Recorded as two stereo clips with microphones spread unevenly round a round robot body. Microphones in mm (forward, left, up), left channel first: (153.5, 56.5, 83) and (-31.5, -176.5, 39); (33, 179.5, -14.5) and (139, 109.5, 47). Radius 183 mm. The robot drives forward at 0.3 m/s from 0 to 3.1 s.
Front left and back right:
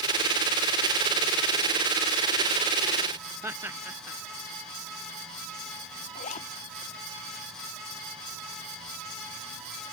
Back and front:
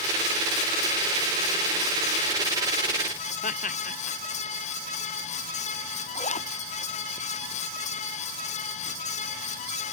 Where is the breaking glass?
I don't hear breaking glass.